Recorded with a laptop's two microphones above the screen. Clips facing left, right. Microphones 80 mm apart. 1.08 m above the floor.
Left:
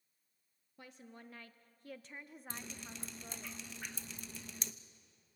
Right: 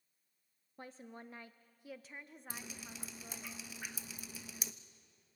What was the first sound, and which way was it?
A woman speaking, 35° right (ahead or behind).